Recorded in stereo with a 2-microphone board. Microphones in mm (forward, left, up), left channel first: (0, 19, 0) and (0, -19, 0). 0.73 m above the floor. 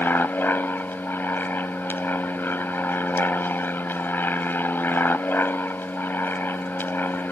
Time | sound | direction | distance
0.0 | an aircraft | 60° left (ahead or behind) | ?